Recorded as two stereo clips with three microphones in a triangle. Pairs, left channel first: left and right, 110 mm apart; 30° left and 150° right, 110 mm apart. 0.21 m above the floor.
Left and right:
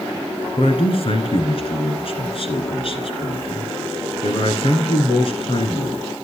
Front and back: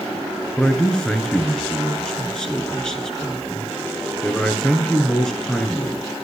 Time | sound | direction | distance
0.6 | a man speaking | 115° left | 2.5 m